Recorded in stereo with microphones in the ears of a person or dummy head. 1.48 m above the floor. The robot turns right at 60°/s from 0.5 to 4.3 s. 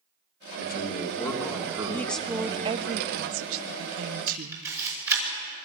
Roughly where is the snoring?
I don't hear snoring.